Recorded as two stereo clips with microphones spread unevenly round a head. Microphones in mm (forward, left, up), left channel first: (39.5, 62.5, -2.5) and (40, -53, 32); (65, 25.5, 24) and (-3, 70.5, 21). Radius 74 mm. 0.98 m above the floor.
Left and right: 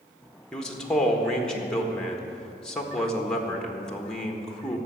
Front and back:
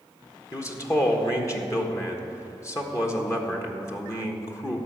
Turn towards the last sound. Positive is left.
turn(degrees=15)